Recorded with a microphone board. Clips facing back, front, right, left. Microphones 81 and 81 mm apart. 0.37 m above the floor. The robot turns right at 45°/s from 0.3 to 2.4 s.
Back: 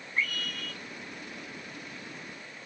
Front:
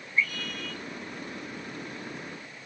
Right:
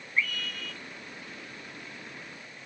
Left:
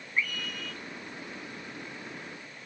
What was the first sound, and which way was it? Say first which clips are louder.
A scream: front 3 dB, right 1 dB; 160° left.